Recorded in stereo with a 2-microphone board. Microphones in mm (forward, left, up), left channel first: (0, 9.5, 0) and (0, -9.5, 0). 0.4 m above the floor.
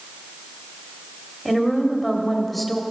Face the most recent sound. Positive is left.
turn(degrees=0)  # may be behind; listen again after turning